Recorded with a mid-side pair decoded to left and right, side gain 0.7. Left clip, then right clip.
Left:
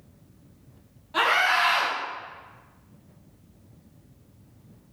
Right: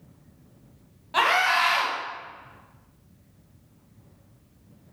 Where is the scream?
35° right, 1.7 m.